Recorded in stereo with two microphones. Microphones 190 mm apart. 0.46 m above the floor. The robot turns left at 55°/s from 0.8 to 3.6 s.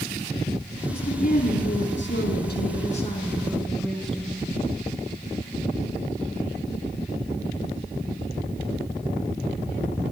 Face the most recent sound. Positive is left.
turn(degrees=0)